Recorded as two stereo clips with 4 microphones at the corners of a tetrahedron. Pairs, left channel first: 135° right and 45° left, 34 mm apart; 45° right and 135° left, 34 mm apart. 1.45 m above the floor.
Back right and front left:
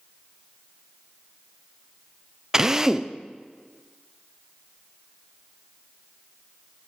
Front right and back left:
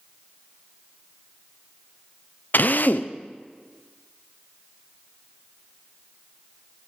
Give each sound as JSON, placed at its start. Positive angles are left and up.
{"t": 2.5, "sound": "a drill", "azimuth_deg": -30, "distance_m": 0.6}